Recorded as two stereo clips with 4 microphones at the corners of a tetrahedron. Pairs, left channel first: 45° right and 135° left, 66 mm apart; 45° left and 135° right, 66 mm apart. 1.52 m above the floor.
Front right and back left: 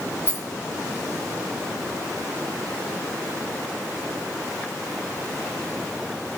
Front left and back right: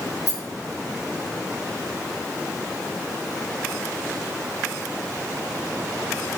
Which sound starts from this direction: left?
A rattle, at 0.3 s.